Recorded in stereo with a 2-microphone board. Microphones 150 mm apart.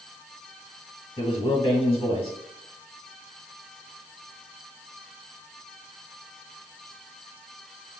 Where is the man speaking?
40° left (ahead or behind), 1.6 m.